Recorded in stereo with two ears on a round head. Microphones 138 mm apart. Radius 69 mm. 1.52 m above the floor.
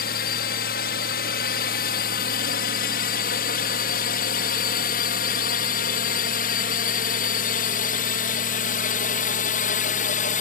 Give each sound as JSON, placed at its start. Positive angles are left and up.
{"t": 0.0, "sound": "a drone", "side_deg": 65}